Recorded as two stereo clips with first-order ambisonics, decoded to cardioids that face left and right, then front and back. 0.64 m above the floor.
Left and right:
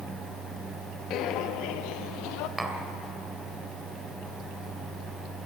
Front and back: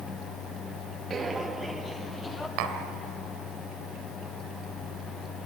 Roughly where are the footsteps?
Behind left.